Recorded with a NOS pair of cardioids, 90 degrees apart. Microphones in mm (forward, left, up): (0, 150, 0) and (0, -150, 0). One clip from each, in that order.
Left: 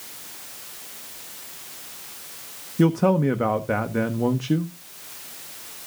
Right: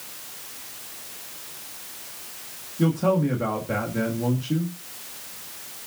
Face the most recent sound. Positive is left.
turn(degrees=65)